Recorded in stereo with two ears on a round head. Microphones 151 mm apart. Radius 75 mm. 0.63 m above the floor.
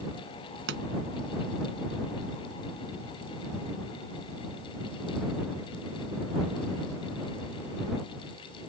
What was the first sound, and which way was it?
A pop, 80° right.